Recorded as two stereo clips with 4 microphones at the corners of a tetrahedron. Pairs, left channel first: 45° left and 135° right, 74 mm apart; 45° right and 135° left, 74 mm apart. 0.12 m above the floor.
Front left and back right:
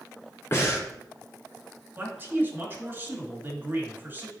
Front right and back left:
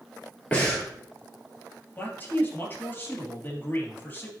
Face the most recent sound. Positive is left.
turn(degrees=-90)